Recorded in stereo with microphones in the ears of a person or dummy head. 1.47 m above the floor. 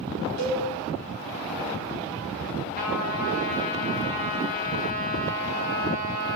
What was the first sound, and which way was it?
A cowbell, 60° left (ahead or behind).